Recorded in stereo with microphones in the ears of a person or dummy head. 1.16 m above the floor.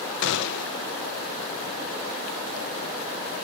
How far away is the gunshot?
About 0.5 m.